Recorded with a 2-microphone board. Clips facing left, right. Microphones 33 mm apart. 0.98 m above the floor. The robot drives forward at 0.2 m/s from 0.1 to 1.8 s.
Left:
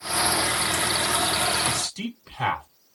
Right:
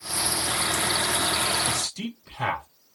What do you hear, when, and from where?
1.6 s a man speaking: 55° left (ahead or behind), 3 m